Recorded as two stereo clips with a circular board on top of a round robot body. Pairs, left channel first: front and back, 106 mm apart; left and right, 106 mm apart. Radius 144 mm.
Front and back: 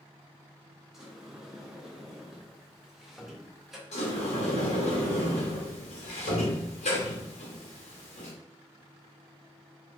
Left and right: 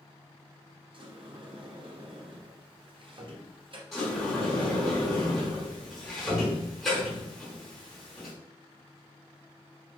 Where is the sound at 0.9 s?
95° right, 0.8 m.